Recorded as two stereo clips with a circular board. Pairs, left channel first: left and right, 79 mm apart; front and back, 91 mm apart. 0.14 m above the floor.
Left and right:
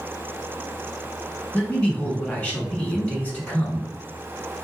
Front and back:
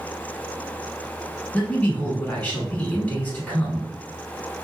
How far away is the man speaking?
About 1.1 m.